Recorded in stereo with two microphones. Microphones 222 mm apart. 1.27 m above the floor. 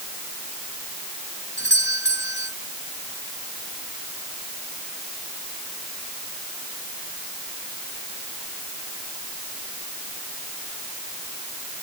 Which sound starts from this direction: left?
A doorbell, at 1.6 s.